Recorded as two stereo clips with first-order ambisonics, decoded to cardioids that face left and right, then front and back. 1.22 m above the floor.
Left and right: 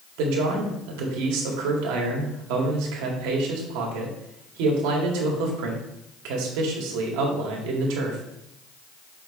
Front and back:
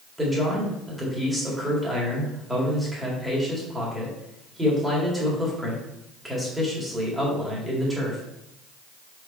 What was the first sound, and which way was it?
A man speaking, 95° right.